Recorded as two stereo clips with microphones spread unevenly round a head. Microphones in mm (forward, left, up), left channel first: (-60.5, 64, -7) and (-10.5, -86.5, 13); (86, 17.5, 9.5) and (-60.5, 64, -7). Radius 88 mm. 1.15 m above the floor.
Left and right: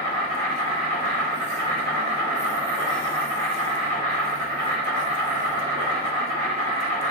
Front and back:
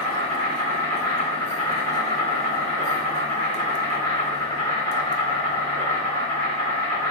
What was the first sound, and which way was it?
An insect, 65° right.